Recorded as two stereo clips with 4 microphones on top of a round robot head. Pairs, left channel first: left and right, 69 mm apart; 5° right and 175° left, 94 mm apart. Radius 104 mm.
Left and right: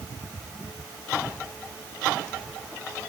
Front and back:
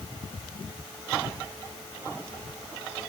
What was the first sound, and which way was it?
Only background noise.